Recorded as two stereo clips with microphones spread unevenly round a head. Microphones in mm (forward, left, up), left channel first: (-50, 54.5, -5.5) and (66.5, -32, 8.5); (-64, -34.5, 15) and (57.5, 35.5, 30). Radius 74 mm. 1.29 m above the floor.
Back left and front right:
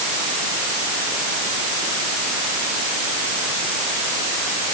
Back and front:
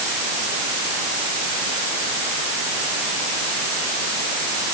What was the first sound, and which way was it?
Only background noise.